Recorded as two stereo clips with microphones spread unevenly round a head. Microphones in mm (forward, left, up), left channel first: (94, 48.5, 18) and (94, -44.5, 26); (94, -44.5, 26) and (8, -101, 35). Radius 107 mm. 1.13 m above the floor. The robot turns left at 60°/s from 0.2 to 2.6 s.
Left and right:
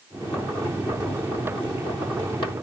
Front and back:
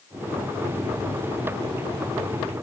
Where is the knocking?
I don't hear knocking.